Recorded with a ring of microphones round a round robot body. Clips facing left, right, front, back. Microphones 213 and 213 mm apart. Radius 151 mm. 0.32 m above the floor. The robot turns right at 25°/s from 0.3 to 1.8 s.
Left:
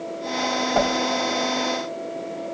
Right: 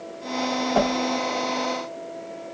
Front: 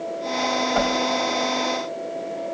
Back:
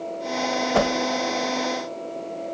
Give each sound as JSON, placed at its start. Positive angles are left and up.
{"t": 0.7, "sound": "a whoosh", "azimuth_deg": -175, "distance_m": 0.7}